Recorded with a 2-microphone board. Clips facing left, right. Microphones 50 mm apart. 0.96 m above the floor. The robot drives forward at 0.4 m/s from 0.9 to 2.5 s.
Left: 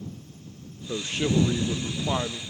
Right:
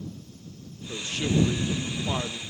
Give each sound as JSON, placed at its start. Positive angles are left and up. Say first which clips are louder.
{"t": 0.9, "sound": "a man speaking", "louder": "left 2 dB", "side_deg": 30, "distance_m": 0.6}